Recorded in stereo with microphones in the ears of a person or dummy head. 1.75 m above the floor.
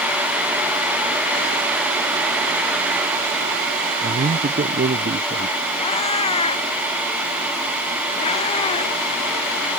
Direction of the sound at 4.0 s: 45° right (ahead or behind).